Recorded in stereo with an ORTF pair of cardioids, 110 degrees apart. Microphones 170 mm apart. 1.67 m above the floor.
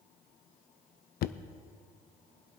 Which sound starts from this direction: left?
Knocking, at 1.2 s.